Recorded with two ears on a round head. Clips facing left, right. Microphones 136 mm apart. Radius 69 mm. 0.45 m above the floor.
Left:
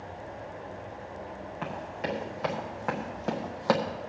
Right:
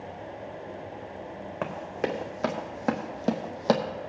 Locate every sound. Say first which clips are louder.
1.6 s running footsteps: right 4 dB; 65° right (ahead or behind), 2 m; by 3.8 s 20° right (ahead or behind), 1.2 m